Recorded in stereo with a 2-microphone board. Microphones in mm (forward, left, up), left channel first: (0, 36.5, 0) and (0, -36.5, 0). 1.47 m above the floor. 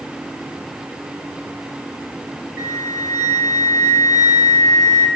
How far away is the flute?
About 1.1 m.